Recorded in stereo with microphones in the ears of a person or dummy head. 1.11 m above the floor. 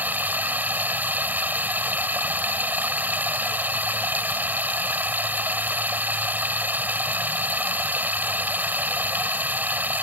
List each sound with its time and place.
0.0 s running water: 10° right (ahead or behind)